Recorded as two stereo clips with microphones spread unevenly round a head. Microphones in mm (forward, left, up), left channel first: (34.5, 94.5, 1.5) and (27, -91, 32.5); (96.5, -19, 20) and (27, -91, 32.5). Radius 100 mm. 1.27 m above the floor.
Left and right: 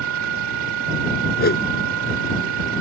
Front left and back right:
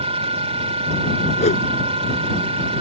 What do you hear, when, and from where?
0.0 s a machine running: 115° right
1.4 s a whoosh: 50° left